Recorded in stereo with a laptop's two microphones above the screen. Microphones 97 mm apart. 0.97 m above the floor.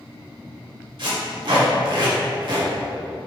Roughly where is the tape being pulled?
Right.